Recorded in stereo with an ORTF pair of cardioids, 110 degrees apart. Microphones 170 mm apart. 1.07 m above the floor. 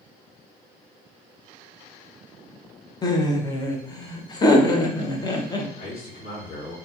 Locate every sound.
3.0 s laughter: 25° left, 0.6 m
5.8 s a man speaking: 65° left, 1.8 m